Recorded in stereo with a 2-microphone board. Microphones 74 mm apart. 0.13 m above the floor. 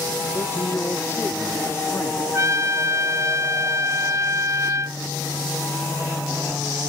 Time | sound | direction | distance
0.3 | a man speaking | 25° left (ahead or behind) | ?
2.3 | a trumpet | 45° right (ahead or behind) | ?